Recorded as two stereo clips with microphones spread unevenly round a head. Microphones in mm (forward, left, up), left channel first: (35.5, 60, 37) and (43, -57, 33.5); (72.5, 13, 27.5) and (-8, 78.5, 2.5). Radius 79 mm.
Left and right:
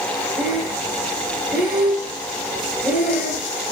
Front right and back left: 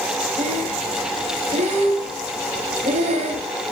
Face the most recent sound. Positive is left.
turn(degrees=-170)